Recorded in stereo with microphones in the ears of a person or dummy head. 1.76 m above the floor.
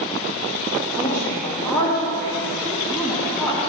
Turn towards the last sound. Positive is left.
turn(degrees=15)  # may be behind; listen again after turning